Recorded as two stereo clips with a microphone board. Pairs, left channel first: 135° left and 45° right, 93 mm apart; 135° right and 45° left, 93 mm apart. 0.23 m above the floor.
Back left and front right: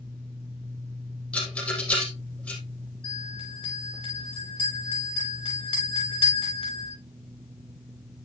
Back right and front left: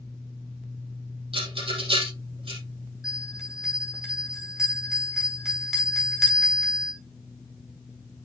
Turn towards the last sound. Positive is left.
turn(degrees=130)